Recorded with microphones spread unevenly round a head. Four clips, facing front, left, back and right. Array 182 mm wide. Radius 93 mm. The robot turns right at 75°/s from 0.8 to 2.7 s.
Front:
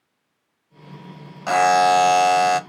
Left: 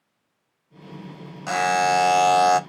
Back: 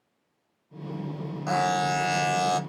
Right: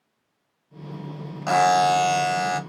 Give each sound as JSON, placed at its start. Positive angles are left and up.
{"t": 1.5, "sound": "a buzzer", "azimuth_deg": -20, "distance_m": 0.7}